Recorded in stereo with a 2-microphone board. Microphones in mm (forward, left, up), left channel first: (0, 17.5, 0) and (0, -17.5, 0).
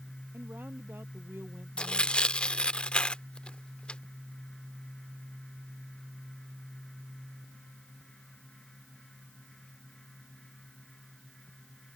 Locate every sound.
0.3 s a woman speaking: 70° right (ahead or behind); by 2.5 s 80° right
1.8 s tearing paper: 35° left (ahead or behind)